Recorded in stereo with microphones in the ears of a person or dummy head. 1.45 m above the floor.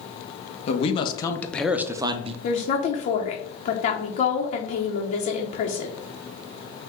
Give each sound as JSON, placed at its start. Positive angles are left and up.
{"t": 0.7, "sound": "a man speaking", "side_deg": 40, "distance_m": 0.8}
{"t": 2.4, "sound": "a woman speaking", "side_deg": 45, "distance_m": 0.7}